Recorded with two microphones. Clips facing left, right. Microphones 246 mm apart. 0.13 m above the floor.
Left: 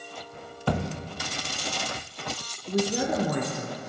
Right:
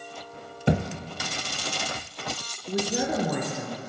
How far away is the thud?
About 0.7 m.